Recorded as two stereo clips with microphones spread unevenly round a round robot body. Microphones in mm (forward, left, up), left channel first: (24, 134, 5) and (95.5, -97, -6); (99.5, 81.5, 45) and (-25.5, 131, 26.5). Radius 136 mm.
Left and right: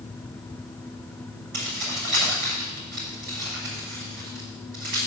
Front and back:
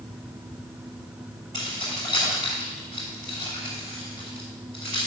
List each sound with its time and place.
1.5 s keys jangling: 125° right, 5.5 m